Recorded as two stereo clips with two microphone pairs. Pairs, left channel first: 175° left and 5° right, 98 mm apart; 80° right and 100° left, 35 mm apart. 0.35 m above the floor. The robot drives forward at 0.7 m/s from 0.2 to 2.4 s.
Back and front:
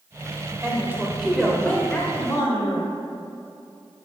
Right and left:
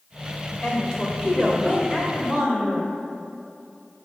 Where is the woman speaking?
45° right, 1.1 m; by 2.9 s 150° right, 1.3 m.